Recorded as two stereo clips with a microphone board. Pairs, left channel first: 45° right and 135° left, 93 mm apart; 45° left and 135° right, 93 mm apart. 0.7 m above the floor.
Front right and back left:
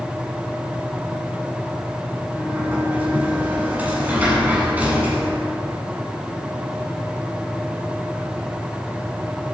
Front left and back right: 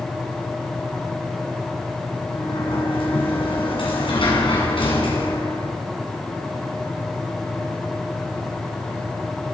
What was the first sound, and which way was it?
A sliding door, 60° left.